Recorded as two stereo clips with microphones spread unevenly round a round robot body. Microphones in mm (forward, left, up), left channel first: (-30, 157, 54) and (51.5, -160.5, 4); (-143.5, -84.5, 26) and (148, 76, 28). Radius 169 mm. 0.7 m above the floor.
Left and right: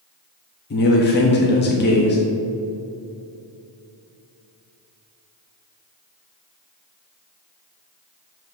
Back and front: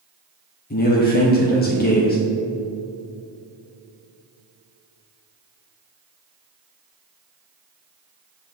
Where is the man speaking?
160° left, 0.9 m.